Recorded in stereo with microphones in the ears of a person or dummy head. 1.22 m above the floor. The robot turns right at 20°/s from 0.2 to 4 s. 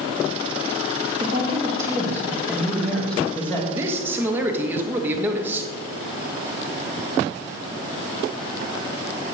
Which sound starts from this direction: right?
A man speaking, at 3.7 s.